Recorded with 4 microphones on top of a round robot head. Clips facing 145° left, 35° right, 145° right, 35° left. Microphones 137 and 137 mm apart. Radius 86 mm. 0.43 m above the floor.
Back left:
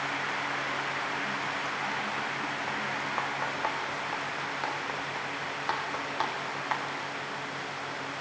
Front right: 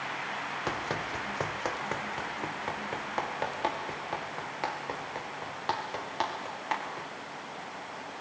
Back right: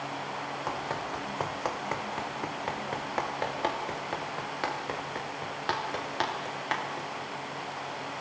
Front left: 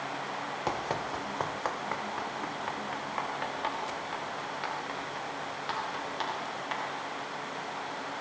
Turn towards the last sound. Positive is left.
turn(degrees=-110)